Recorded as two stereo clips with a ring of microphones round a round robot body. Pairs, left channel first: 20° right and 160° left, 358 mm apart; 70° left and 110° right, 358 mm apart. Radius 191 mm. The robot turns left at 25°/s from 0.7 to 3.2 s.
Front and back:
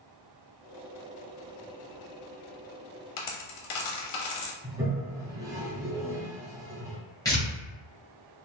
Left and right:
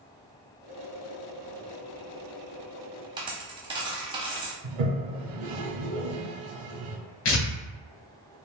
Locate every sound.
3.2 s a dropped coin: 35° right, 0.9 m
4.6 s a toilet flushing: 120° right, 0.9 m
7.2 s tearing paper: 60° left, 1.8 m